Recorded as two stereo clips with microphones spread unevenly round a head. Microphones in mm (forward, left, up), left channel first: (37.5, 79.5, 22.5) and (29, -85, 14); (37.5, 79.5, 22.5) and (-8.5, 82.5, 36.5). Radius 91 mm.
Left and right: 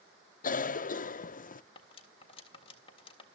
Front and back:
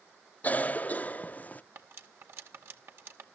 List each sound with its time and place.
0.4 s a cough: 45° left, 0.6 m
1.8 s cutlery clinking: 150° left, 2.0 m